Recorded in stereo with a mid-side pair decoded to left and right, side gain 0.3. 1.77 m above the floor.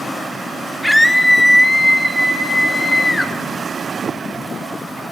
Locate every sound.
0.8 s a scream: 10° left, 5.5 m; by 3.3 s 25° left, 9 m